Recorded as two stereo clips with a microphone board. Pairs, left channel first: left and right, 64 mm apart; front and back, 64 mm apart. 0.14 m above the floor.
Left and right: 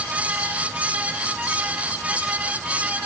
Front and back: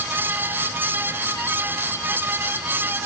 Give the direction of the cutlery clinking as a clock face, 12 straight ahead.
I don't hear cutlery clinking.